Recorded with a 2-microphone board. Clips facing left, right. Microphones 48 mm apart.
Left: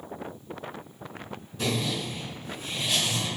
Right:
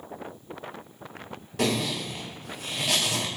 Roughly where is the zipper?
Right.